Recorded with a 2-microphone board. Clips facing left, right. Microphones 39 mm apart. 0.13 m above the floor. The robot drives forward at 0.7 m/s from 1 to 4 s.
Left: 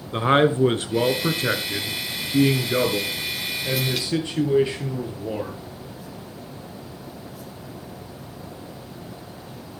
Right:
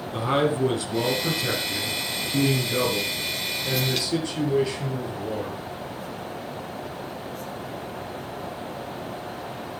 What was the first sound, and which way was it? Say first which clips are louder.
A man speaking: left 5 dB; 40° left (ahead or behind).